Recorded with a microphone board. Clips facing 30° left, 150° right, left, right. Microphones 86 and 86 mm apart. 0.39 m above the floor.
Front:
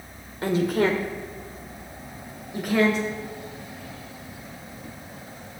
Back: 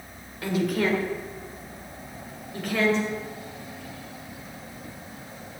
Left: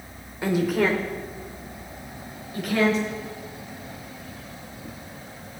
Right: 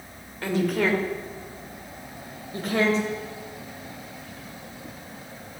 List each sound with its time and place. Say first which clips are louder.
0.4 s a woman speaking: front 3 dB, left 2 dB; 30° left, 1.5 m; by 3.0 s 50° right, 2 m